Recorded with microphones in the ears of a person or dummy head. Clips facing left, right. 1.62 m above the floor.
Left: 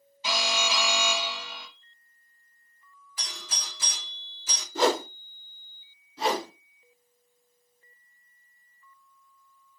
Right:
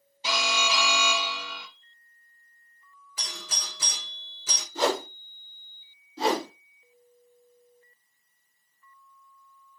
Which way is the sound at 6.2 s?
25° right (ahead or behind).